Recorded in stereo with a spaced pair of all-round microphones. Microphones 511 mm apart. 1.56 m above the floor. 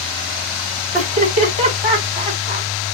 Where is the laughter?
50° left (ahead or behind), 3 m.